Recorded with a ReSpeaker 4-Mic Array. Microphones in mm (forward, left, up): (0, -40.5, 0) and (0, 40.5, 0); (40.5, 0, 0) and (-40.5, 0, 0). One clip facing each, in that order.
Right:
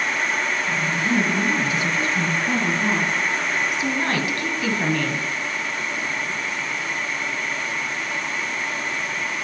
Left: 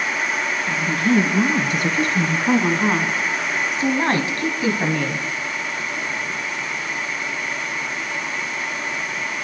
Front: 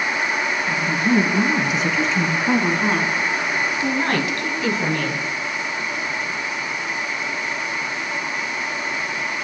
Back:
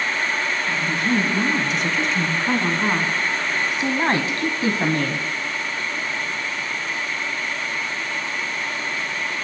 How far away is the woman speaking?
About 3.5 m.